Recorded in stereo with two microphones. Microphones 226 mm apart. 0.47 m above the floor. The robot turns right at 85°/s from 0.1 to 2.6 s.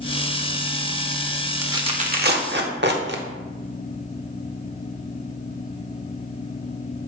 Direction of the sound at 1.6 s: 10° right (ahead or behind).